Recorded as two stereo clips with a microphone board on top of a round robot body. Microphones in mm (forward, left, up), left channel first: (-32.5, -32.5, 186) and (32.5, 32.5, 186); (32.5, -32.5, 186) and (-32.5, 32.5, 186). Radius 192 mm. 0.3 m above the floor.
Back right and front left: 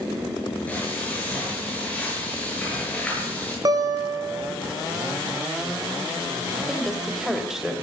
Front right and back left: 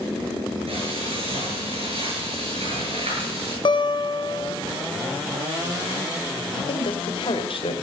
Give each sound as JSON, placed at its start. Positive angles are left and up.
{"t": 0.7, "sound": "frying", "azimuth_deg": 150, "distance_m": 8.0}
{"t": 3.6, "sound": "a guitar", "azimuth_deg": -5, "distance_m": 1.7}
{"t": 6.5, "sound": "a woman speaking", "azimuth_deg": -40, "distance_m": 2.5}